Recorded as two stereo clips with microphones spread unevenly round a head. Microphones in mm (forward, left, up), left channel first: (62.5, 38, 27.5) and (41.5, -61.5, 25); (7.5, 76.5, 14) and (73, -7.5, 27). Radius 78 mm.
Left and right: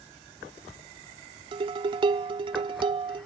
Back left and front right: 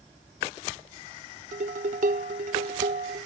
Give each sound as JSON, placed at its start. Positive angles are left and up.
{"t": 1.5, "sound": "dishes clattering", "azimuth_deg": -65}